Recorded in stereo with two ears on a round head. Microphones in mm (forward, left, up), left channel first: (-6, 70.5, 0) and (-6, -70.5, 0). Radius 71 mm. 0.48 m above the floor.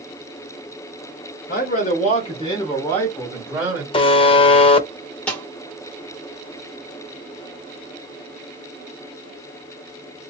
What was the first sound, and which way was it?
A man speaking, 55° left (ahead or behind).